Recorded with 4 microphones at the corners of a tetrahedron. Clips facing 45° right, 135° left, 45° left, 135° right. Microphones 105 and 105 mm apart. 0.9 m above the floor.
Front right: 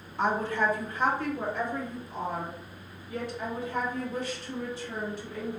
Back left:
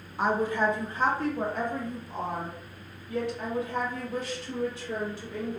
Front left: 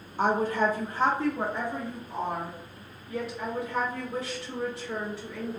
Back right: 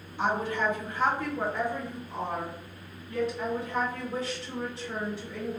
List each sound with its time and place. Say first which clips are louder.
0.2 s a woman speaking: back left 1 dB, front left 3 dB; 50° left, 0.8 m; by 5.6 s 135° left, 3 m